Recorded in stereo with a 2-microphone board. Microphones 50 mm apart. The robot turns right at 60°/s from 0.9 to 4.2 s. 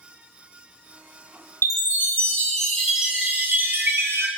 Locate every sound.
1.6 s a chime: 115° left, 0.5 m; by 4.3 s 90° right, 0.5 m